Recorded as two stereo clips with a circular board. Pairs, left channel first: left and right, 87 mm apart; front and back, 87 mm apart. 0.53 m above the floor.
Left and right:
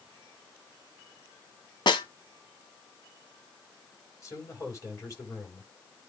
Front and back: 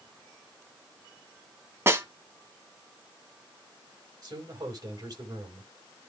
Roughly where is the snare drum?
Behind left.